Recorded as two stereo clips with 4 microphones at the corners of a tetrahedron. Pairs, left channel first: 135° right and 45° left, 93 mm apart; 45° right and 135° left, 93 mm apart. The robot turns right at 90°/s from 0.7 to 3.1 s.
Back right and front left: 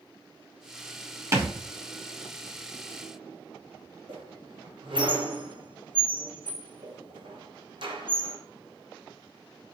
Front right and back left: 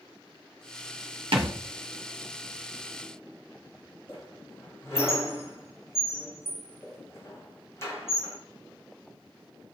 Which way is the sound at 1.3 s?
105° left.